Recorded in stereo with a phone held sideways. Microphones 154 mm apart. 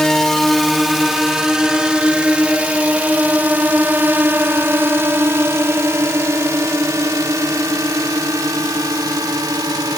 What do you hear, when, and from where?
0.0 s a drone: 5° left (ahead or behind); by 10.0 s 25° right (ahead or behind)